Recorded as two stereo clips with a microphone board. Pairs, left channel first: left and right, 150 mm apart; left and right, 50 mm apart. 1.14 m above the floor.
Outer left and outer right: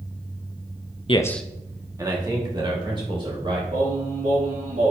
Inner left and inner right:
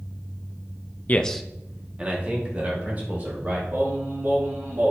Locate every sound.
1.1 s a man speaking: 40° left (ahead or behind), 0.6 m; by 3.6 s 35° right (ahead or behind), 4 m
3.7 s singing: 55° right (ahead or behind), 2 m